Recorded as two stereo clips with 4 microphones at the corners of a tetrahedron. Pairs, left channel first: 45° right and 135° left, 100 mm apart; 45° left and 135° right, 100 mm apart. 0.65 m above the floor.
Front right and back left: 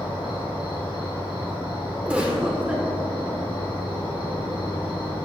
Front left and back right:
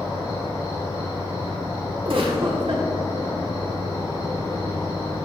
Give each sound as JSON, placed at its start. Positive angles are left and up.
{"t": 0.0, "sound": "an insect", "azimuth_deg": -10, "distance_m": 3.0}
{"t": 2.0, "sound": "a giggle", "azimuth_deg": -145, "distance_m": 1.5}